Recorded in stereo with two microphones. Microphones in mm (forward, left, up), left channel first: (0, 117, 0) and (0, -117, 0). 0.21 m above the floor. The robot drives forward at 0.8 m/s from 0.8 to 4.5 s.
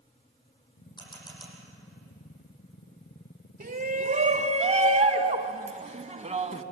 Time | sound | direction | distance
1.0 | a camera shutter | 20° left (ahead or behind) | 7.5 m
3.6 | a shout | 35° right (ahead or behind) | 1.2 m